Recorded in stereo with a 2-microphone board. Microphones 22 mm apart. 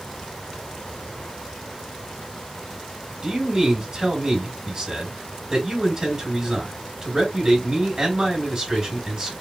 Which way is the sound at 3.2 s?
30° right (ahead or behind).